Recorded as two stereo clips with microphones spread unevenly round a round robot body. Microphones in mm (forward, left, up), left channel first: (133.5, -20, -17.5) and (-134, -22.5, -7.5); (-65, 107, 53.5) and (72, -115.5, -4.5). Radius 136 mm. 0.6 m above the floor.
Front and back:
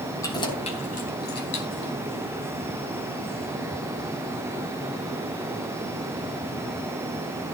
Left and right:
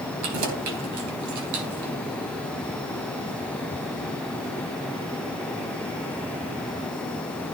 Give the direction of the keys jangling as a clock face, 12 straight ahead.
3 o'clock.